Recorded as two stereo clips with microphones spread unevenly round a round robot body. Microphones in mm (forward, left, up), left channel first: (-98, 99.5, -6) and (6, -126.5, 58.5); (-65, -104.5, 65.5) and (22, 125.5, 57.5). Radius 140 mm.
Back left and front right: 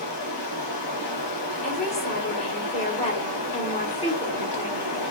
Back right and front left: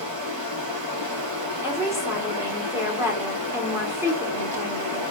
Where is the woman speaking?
140° left, 1.2 m.